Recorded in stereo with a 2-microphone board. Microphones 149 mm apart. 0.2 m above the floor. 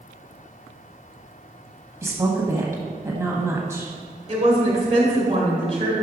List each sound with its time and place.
2.0 s a woman speaking: 20° right (ahead or behind), 1.0 m
4.3 s a woman speaking: 40° right (ahead or behind), 1.5 m